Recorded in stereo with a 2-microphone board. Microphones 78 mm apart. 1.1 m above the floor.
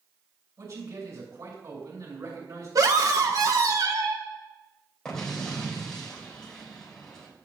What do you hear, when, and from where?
0.6 s a man speaking: 55° right (ahead or behind), 6 m
2.8 s a scream: 50° right (ahead or behind), 1.4 m
5.0 s an explosion: 10° left (ahead or behind), 3 m